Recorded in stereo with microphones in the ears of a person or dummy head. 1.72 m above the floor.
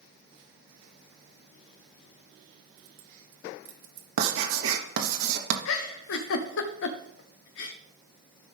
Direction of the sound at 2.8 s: 65° right (ahead or behind).